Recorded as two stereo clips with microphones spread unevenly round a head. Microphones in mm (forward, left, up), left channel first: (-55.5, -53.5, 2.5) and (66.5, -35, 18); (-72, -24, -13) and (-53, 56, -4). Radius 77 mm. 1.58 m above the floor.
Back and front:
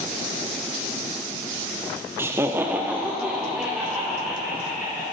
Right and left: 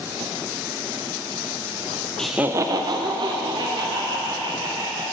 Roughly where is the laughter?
Ahead.